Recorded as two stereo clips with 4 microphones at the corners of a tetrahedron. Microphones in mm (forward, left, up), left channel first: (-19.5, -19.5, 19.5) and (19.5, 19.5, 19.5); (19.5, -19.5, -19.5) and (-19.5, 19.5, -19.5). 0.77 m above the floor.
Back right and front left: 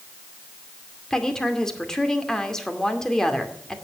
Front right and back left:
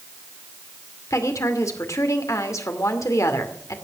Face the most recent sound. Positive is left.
turn(degrees=-55)